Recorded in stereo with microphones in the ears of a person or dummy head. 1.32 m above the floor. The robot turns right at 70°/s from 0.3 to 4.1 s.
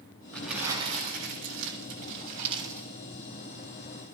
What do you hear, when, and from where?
0.3 s crumpling: 5° left (ahead or behind), 7.5 m; by 2.9 s 5° right (ahead or behind), 7.5 m